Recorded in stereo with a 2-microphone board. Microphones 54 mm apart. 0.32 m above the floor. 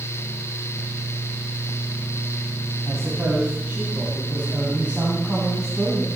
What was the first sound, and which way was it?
A man speaking, 50° right (ahead or behind).